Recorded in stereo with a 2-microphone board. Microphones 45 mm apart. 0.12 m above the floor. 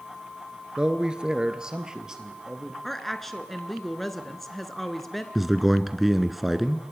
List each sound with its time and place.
0.8 s a man speaking: 20° right (ahead or behind), 1.3 m; by 2.7 s 15° right (ahead or behind), 2.5 m
2.8 s a woman speaking: 5° left (ahead or behind), 1.2 m
5.3 s a man speaking: centre (ahead or behind), 1.1 m